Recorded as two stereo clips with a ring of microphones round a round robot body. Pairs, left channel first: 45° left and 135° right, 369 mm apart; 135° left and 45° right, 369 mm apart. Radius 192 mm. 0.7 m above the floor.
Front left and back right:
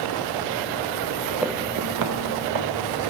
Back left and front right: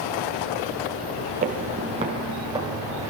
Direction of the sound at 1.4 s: 50° right.